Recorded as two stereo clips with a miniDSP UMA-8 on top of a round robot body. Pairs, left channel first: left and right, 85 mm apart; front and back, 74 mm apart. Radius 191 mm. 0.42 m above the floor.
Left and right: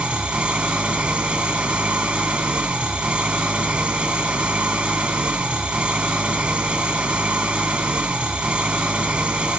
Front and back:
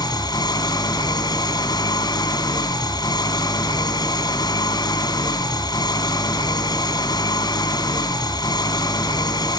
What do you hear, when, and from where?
0.0 s an engine running: 15° right, 2 m